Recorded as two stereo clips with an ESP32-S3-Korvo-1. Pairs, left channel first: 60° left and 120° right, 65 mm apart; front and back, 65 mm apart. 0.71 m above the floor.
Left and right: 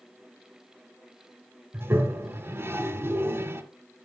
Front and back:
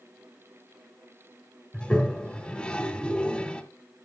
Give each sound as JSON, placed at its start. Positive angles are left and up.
{"t": 1.7, "sound": "a toilet flushing", "azimuth_deg": -75, "distance_m": 1.6}